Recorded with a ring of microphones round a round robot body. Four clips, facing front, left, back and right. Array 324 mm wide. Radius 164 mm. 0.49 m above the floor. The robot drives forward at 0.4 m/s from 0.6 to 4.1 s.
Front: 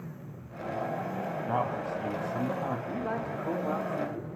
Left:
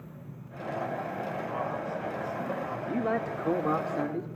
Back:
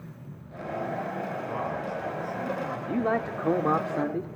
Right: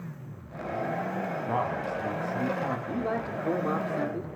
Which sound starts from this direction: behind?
A man speaking, at 2.9 s.